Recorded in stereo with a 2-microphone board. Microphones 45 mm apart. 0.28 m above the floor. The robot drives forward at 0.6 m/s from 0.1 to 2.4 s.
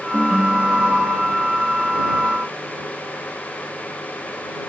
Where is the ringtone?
15° right (ahead or behind); by 1.4 s 5° right (ahead or behind).